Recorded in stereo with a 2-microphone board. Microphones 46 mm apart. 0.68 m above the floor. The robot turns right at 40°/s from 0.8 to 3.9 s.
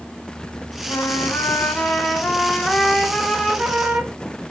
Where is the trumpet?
90° left, 0.8 m; by 4.2 s 150° right, 0.8 m.